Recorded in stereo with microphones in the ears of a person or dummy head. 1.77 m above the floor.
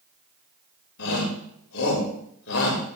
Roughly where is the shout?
Left.